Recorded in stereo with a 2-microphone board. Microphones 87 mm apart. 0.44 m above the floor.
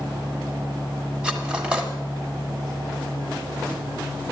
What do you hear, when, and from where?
1.2 s cutlery clinking: 10° right (ahead or behind), 1.7 m